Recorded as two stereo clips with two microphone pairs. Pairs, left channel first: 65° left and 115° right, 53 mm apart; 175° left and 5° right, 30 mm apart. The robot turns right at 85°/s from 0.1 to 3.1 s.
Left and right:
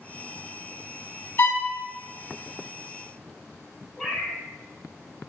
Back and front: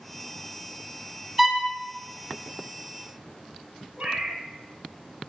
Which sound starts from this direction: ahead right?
A cat meowing, at 4.0 s.